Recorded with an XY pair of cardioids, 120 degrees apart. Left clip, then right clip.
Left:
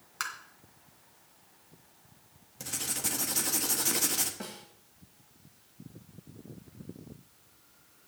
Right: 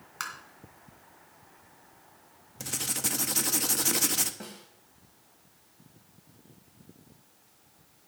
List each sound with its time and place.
0.2 s tapping: straight ahead, 2.5 m
2.6 s writing: 20° right, 1.0 m
4.4 s a snare drum: 10° left, 3 m